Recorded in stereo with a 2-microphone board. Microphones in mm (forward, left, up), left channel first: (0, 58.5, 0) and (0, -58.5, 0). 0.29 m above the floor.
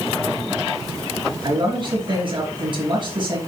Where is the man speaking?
45° right (ahead or behind), 4 m.